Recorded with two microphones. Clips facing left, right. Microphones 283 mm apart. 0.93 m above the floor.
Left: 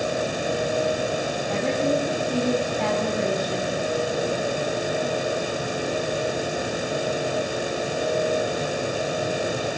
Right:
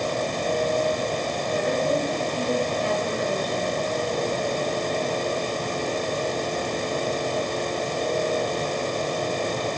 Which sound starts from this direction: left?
A woman speaking, at 1.5 s.